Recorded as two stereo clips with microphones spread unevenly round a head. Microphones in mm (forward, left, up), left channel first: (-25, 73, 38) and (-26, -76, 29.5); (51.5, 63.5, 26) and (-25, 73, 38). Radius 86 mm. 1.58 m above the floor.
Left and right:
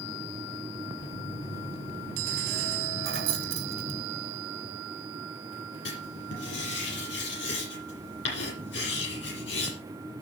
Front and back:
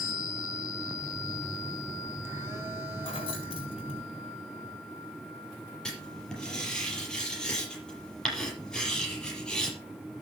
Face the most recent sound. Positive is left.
turn(degrees=75)